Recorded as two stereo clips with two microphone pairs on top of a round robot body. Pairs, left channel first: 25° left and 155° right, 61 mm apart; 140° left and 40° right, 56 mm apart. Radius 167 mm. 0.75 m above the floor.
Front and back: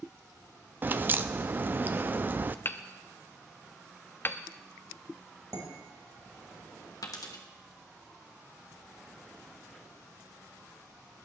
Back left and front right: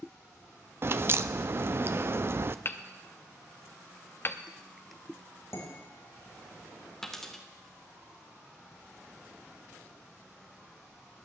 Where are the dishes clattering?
175° left, 4 m.